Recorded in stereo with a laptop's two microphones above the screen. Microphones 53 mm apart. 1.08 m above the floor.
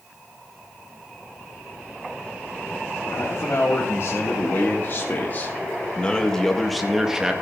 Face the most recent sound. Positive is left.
turn(degrees=-15)  # may be behind; listen again after turning